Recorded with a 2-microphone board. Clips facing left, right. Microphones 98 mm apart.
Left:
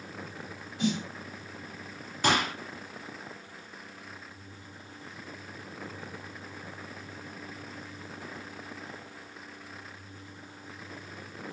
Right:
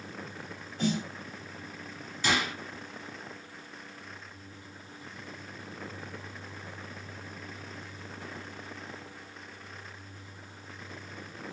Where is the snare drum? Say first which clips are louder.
Even; 40° right (ahead or behind), 1.9 m.